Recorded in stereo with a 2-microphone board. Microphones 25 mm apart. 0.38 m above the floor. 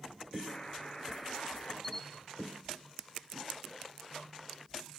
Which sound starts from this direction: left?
A buzzer, at 0.5 s.